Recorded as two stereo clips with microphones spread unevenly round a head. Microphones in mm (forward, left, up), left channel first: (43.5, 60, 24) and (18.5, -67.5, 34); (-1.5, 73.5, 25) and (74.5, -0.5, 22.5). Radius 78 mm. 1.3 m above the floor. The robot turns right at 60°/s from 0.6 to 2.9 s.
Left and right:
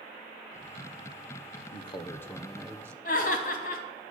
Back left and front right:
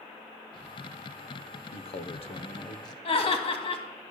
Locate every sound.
1.7 s a man speaking: 115° left, 0.8 m; by 3.0 s 170° right, 0.8 m
3.0 s laughter: 110° left, 2 m